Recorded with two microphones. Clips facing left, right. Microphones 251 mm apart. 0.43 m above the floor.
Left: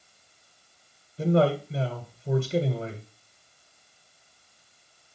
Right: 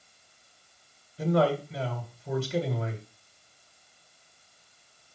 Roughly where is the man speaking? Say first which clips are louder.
Left 2 dB; left.